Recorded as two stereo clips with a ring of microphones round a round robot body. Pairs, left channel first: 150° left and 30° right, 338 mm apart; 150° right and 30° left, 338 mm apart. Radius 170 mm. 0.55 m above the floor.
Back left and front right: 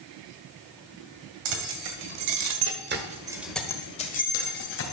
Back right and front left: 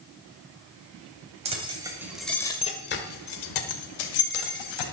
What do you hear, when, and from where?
1.4 s keys jangling: 40° right, 2.5 m; by 4.8 s 155° right, 2.5 m